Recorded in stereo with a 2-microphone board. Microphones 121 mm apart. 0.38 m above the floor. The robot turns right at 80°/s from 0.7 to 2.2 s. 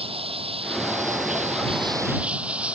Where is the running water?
130° right; by 2.8 s 10° right.